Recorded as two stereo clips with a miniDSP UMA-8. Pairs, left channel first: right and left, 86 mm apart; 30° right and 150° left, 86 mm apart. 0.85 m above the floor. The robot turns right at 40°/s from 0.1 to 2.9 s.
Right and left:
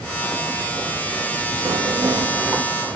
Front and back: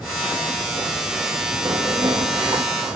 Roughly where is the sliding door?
Behind left.